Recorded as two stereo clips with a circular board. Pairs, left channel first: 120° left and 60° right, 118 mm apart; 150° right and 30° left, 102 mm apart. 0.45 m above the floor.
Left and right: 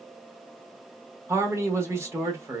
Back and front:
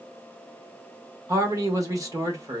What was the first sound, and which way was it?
A man speaking, 5° right.